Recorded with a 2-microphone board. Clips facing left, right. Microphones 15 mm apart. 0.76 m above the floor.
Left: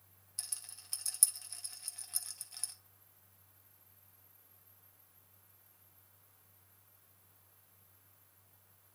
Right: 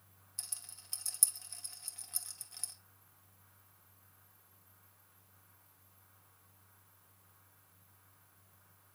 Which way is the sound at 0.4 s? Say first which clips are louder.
Left 1 dB; 10° left (ahead or behind).